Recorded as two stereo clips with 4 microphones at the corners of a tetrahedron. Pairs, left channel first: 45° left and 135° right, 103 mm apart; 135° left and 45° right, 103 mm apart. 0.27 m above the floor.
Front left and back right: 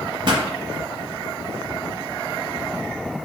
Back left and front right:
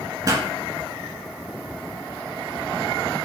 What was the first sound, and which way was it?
A pop, 100° right.